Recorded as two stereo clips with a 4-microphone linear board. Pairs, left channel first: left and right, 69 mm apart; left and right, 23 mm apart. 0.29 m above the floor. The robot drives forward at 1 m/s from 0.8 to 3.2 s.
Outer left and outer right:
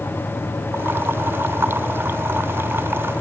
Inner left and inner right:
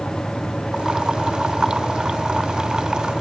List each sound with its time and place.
Only background noise.